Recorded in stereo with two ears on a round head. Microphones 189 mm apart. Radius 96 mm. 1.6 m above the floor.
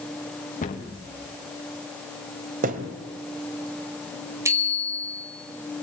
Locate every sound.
0.6 s a cupboard door: 40° left (ahead or behind), 2.5 m
2.6 s a thud: 40° right (ahead or behind), 2 m
4.5 s a bicycle bell: 15° right (ahead or behind), 5 m